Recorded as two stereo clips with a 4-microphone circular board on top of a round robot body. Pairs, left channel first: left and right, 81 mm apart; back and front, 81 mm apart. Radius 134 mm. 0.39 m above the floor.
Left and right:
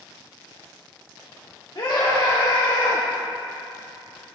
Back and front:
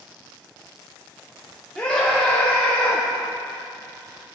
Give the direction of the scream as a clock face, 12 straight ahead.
9 o'clock.